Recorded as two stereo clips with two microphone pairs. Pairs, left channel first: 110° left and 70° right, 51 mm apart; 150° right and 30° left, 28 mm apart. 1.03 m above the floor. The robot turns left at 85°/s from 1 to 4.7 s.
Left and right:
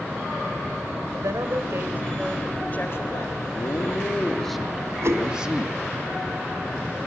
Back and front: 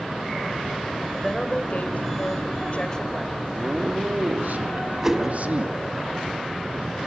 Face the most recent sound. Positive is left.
turn(degrees=-40)